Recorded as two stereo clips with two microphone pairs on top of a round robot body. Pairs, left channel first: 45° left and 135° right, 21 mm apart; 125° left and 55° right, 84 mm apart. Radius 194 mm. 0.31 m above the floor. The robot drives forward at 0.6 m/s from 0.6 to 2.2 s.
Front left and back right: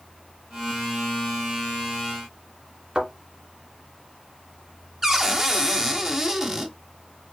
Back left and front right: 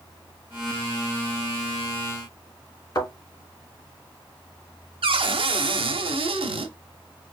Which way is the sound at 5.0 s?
65° right.